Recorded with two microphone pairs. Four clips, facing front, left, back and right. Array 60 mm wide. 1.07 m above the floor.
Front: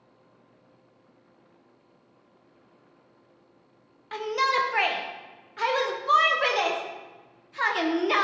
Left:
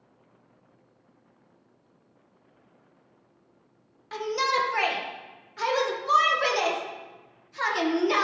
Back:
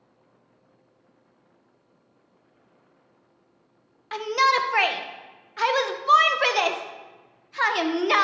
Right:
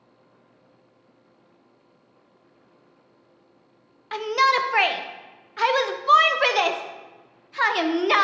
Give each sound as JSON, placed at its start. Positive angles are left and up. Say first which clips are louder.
{"t": 4.1, "sound": "a shout", "louder": "right 6 dB, back 4 dB", "azimuth_deg": -135, "distance_m": 0.8}